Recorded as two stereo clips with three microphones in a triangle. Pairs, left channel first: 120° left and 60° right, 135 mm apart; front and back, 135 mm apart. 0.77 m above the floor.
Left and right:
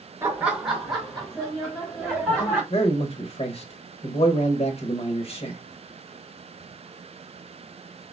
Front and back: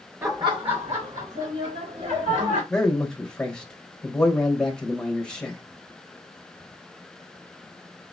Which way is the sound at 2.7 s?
85° left.